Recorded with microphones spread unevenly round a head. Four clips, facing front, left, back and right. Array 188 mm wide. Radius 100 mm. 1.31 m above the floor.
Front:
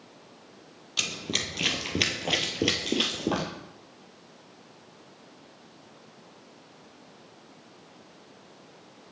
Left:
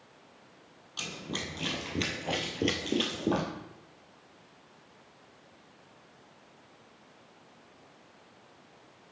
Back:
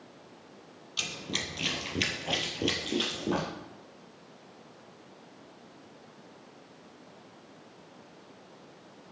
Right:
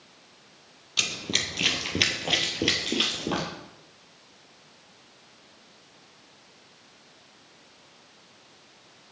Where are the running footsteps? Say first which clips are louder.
Right 4 dB, front 3 dB; 40° right, 2 m; by 3.5 s 20° left, 1.8 m.